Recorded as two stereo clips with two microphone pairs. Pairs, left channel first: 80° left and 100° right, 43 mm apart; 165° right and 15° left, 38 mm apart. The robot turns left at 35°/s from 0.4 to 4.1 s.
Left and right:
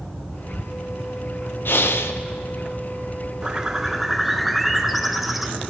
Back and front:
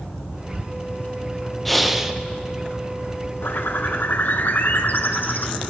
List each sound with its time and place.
1.6 s breathing: 105° left, 0.5 m; by 2.2 s 85° left, 0.5 m
3.4 s a bird: 165° right, 0.5 m; by 5.7 s 170° left, 0.5 m